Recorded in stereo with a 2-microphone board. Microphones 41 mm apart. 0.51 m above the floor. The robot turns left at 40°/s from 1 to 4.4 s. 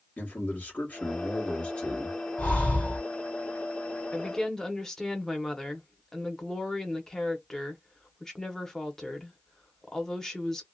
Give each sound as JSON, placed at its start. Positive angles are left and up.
{"t": 0.2, "sound": "a man speaking", "azimuth_deg": 80, "distance_m": 1.2}
{"t": 2.4, "sound": "breathing", "side_deg": 40, "distance_m": 1.7}
{"t": 4.1, "sound": "a woman speaking", "side_deg": 15, "distance_m": 0.8}